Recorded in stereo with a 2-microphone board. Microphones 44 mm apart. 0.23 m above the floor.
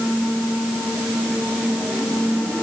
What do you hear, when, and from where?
Only background noise.